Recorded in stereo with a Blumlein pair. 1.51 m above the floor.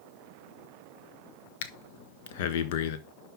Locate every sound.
1.6 s breathing: 50° left, 0.9 m